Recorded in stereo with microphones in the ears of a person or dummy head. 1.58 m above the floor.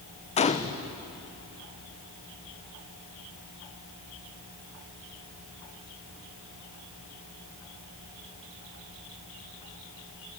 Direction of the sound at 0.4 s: 30° left (ahead or behind).